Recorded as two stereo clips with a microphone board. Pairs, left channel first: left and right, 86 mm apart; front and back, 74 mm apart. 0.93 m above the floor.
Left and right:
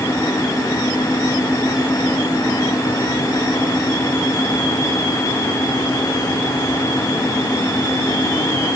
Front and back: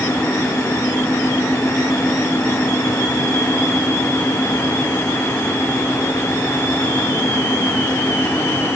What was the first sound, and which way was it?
Only background noise.